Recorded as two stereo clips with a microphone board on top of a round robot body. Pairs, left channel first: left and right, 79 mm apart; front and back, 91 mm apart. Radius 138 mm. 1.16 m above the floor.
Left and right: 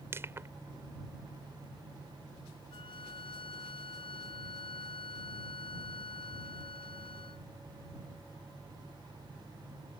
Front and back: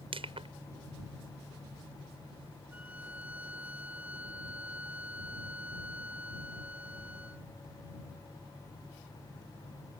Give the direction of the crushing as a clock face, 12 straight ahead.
5 o'clock.